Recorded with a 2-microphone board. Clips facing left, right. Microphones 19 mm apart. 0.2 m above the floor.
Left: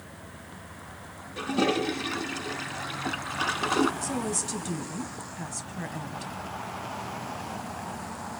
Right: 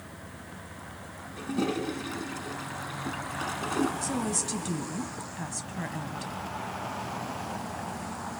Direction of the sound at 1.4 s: 35° left (ahead or behind).